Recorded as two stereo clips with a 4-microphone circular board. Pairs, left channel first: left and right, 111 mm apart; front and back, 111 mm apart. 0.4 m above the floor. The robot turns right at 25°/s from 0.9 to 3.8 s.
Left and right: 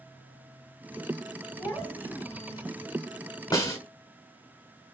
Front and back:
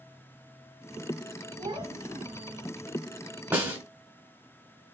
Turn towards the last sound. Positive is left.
turn(degrees=125)